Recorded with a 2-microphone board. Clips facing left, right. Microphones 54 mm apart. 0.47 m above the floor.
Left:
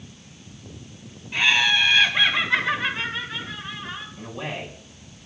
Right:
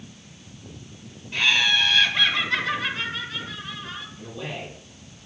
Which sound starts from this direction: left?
A man speaking, at 4.2 s.